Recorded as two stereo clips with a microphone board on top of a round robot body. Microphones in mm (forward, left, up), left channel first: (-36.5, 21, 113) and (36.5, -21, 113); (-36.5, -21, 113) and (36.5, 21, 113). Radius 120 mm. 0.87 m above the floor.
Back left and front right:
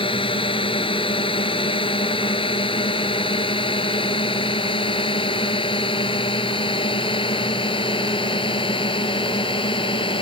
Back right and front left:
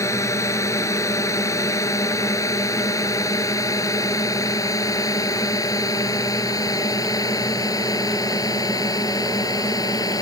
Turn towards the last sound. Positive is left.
turn(degrees=165)